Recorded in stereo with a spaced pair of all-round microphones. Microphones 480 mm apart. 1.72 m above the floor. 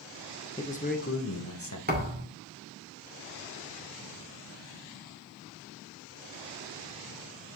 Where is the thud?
20° right (ahead or behind), 2.5 m.